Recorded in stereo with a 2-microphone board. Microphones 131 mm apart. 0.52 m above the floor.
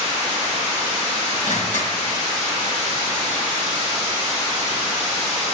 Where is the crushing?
70° left (ahead or behind), 2 m.